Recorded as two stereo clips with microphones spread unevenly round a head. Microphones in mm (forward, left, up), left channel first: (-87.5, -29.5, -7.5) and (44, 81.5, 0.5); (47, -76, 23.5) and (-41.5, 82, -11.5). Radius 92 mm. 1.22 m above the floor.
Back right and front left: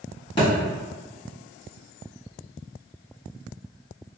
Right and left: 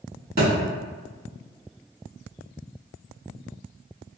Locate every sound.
0.4 s a thud: 155° left, 1.4 m